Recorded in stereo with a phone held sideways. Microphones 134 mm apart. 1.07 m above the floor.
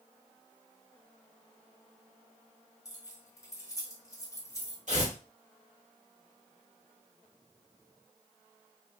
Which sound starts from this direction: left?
Keys jangling, at 2.9 s.